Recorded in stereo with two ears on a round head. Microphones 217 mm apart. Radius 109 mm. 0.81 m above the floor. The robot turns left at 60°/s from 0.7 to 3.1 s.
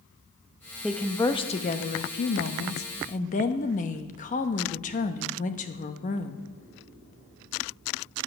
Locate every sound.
0.8 s a woman speaking: 175° right, 0.9 m; by 6.5 s 45° left, 0.9 m